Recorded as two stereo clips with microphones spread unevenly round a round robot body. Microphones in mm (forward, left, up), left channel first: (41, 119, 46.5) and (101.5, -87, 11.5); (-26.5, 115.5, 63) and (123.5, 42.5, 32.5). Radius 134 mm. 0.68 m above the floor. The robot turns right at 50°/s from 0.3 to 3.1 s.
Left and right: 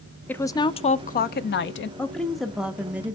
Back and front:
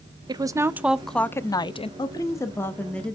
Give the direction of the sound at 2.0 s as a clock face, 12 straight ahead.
5 o'clock.